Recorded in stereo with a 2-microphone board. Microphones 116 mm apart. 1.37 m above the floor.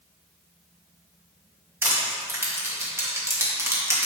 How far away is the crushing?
About 2 m.